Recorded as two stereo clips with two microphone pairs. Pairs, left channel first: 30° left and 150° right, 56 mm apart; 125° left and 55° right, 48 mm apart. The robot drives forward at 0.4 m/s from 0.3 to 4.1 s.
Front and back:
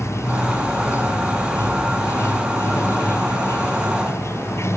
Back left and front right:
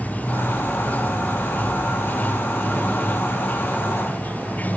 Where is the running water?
70° left.